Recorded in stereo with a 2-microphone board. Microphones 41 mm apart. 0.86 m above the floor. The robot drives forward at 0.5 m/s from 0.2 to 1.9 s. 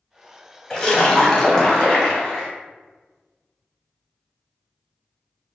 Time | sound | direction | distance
0.7 | a splash | 20° left (ahead or behind) | 0.7 m